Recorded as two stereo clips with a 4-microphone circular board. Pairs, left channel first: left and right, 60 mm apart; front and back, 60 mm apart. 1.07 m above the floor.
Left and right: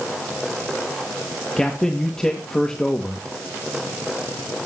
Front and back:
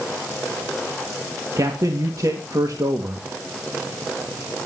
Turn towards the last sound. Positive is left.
turn(degrees=170)